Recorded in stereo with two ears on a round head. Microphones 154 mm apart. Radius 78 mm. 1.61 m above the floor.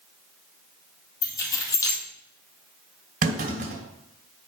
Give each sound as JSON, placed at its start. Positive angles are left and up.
{"t": 1.2, "sound": "keys jangling", "side_deg": 20, "distance_m": 2.0}
{"t": 3.2, "sound": "a clunk", "side_deg": -50, "distance_m": 2.0}